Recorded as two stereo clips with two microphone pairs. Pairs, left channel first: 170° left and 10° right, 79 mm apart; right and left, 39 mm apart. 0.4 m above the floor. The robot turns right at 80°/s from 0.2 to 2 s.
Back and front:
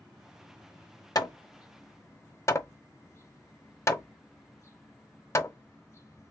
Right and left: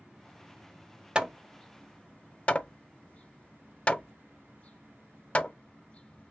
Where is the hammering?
145° left, 0.6 m; by 6.3 s 145° right, 0.6 m.